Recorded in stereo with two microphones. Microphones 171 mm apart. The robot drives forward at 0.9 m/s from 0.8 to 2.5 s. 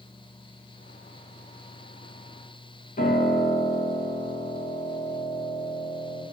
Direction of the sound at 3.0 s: 50° left (ahead or behind).